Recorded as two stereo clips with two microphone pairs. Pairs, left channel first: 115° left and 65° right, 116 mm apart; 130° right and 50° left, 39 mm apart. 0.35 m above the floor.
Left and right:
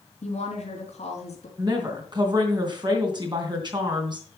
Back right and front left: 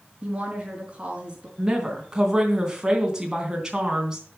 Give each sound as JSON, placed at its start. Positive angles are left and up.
{"t": 0.2, "sound": "a woman speaking", "azimuth_deg": 115, "distance_m": 4.0}
{"t": 1.6, "sound": "a woman speaking", "azimuth_deg": -20, "distance_m": 3.0}